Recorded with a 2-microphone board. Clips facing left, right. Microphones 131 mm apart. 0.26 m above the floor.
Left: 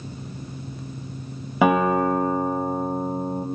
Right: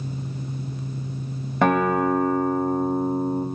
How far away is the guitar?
About 1.1 m.